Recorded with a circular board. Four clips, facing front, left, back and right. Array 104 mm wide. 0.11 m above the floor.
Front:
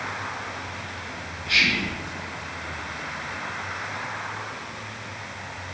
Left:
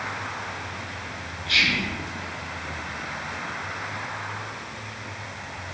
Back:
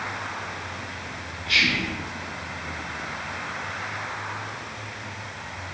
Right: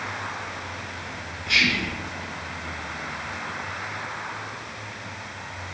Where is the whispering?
75° right, 1.2 m.